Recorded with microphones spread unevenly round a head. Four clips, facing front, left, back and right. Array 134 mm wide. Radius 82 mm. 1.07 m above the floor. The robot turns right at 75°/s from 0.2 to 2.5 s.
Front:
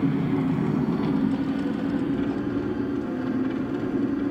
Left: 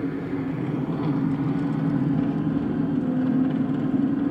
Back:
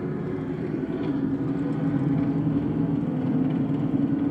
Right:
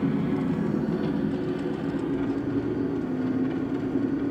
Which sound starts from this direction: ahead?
An engine running, at 0.0 s.